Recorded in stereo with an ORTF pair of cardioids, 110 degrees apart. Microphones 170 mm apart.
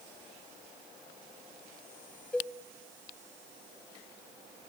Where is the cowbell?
5° left, 1.1 m.